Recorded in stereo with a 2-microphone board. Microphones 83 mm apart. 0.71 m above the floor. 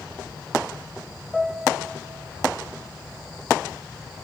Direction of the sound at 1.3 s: Centre (ahead or behind).